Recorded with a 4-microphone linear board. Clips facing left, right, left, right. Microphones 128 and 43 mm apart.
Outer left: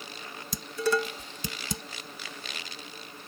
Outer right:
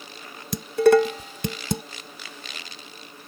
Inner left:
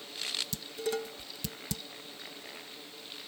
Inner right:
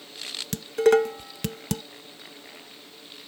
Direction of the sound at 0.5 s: 65° right (ahead or behind).